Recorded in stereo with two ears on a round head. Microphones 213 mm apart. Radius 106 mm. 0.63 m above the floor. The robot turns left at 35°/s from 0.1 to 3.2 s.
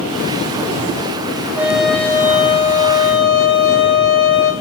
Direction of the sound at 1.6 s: 170° right.